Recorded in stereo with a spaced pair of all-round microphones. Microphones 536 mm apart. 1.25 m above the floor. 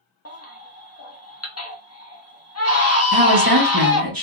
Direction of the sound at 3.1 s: 40° right (ahead or behind).